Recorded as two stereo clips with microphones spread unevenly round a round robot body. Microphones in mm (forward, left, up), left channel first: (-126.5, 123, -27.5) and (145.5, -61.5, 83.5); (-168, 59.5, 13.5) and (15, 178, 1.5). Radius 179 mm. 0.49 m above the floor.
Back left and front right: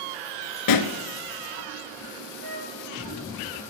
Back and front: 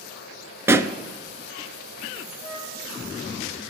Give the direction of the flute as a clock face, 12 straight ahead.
2 o'clock.